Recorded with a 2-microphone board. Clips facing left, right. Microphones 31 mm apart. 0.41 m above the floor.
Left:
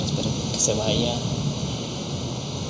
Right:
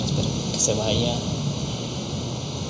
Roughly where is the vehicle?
Centre.